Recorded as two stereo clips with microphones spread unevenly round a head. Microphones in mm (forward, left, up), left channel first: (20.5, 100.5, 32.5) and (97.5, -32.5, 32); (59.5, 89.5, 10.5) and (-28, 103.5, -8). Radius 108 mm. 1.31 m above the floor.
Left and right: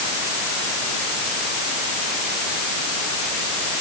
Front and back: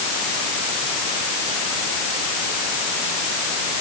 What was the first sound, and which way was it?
Only background noise.